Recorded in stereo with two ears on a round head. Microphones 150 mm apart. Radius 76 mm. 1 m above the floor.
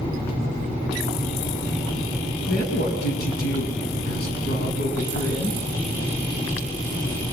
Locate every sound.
2.5 s a woman speaking: 65° left (ahead or behind), 8 m